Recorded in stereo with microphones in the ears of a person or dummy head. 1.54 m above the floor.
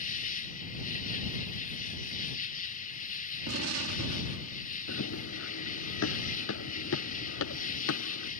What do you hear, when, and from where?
0.0 s an insect: 45° left (ahead or behind)
3.5 s an explosion: 85° right
4.9 s running footsteps: 70° left (ahead or behind); by 8.3 s 75° left (ahead or behind)